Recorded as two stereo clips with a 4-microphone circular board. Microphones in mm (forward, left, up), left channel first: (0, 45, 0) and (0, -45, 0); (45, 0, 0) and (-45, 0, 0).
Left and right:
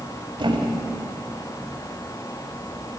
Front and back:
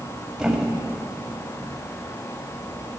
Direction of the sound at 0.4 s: 100° right.